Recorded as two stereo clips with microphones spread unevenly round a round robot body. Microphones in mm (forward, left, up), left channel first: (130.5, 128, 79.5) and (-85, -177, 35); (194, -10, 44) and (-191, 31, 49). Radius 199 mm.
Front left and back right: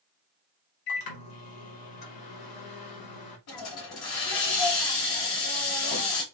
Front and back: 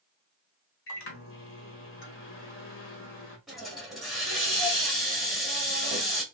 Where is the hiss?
85° left, 1.7 m.